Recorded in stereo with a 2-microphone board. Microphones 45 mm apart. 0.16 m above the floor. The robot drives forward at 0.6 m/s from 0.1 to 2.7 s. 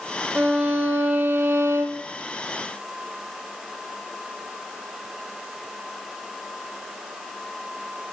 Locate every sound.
0.3 s a violin: 35° right (ahead or behind), 1.3 m; by 2.0 s 80° right, 0.7 m